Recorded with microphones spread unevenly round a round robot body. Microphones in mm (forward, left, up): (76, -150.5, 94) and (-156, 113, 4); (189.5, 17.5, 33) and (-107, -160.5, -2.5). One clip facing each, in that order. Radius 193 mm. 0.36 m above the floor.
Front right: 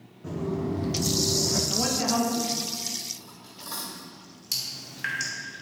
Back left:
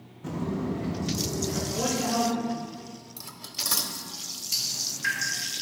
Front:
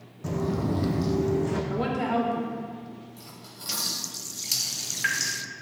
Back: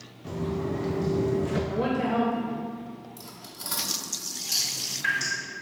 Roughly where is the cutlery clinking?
Behind left.